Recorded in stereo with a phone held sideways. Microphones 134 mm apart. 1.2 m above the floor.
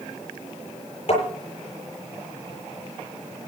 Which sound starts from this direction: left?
Tapping, at 1.1 s.